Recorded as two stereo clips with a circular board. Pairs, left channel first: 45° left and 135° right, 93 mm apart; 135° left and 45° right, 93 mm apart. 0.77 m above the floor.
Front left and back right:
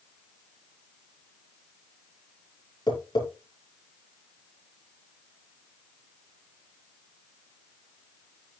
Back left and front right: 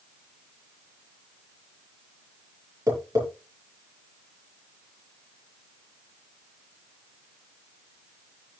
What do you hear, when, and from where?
2.9 s tapping: 10° left, 8 m